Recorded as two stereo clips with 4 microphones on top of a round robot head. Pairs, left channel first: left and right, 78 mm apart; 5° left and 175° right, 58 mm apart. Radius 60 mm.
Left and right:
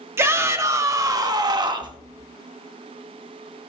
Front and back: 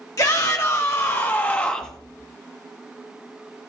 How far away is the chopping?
No chopping in this recording.